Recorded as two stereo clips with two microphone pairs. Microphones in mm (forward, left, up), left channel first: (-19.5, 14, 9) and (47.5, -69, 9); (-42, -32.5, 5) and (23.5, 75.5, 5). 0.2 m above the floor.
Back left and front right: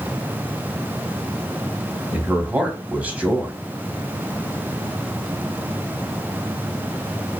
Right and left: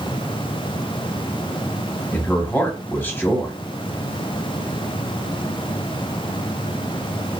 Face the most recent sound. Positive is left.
turn(degrees=-85)